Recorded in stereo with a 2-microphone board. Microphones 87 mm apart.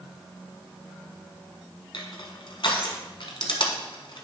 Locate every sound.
1.9 s crushing: 70° left (ahead or behind), 1.3 m